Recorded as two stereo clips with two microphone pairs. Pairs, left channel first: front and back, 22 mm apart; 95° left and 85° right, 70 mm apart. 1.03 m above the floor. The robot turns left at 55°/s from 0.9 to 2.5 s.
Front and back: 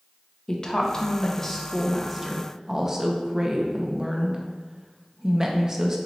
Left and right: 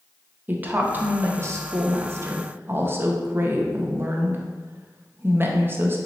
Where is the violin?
I don't hear a violin.